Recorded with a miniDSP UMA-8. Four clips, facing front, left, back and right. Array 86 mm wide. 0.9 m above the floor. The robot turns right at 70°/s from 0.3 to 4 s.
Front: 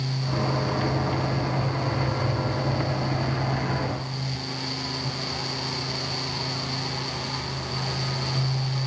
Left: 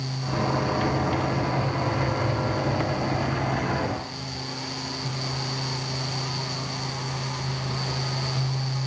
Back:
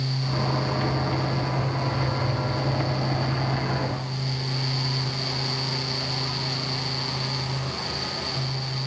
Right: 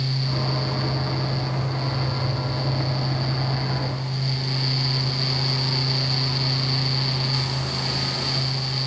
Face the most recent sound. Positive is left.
No sound to turn to.